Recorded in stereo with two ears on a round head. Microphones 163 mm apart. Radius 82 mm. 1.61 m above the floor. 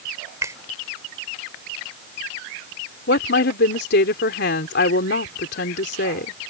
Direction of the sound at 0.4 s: 15° right (ahead or behind).